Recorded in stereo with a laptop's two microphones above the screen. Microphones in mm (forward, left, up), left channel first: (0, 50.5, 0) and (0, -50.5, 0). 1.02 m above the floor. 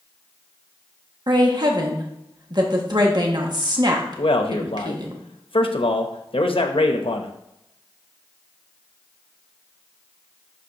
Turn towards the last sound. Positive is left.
turn(degrees=70)  # may be behind; listen again after turning